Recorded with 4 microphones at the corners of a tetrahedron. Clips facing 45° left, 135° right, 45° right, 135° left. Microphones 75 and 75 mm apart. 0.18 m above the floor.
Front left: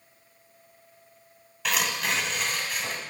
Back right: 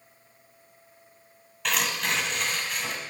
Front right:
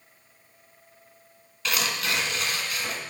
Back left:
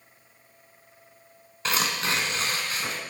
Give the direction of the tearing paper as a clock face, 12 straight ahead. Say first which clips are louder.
Even, back left 1 dB; 8 o'clock.